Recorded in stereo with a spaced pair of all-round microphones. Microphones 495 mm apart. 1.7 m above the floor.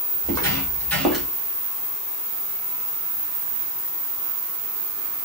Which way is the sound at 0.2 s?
10° left (ahead or behind).